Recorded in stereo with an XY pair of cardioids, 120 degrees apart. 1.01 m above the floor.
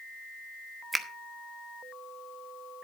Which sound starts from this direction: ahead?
A finger snap, at 0.9 s.